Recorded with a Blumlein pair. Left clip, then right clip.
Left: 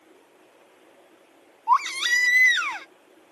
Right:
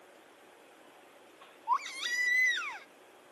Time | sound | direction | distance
1.7 | a baby crying | 60° left | ?